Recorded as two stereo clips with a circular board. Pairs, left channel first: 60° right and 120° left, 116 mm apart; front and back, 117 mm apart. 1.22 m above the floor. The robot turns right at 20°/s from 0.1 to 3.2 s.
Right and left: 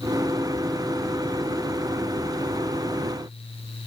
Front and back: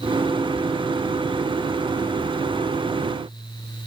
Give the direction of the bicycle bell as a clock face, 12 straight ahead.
No bicycle bell in this recording.